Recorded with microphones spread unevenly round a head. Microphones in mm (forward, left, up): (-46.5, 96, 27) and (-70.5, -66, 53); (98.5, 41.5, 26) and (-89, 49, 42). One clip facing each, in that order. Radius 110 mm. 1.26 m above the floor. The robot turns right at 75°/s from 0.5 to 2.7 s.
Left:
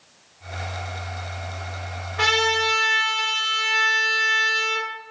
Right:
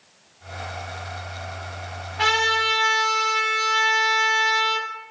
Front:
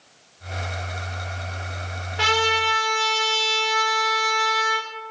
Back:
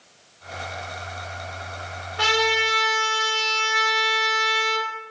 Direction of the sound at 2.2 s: 70° left.